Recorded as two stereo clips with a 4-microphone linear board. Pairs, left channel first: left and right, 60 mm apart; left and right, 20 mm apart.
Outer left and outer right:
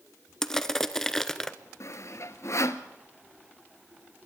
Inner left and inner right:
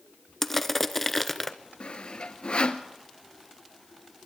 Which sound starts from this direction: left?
Sawing, at 1.8 s.